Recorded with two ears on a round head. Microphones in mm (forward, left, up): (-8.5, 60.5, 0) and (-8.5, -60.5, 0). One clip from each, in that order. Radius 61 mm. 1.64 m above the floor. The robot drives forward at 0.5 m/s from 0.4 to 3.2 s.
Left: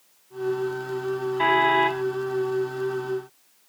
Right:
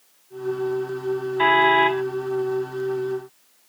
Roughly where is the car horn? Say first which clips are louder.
Right 3 dB; centre.